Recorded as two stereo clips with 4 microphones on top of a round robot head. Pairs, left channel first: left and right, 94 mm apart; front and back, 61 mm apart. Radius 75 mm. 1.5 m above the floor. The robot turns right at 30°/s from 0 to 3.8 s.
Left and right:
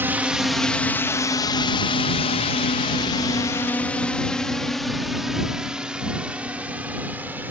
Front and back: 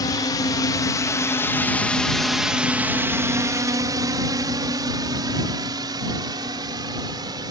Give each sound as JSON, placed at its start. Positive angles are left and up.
{"t": 0.0, "sound": "a drone", "azimuth_deg": -25}